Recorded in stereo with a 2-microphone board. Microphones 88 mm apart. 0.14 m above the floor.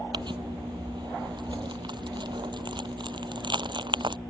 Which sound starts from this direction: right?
Crumpling, at 0.1 s.